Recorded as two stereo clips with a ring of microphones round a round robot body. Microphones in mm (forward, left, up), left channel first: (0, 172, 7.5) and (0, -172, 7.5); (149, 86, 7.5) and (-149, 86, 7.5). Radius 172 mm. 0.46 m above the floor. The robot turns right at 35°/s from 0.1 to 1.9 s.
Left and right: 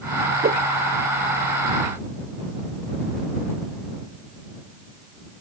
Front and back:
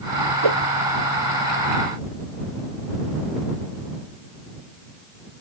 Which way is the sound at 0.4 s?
155° right.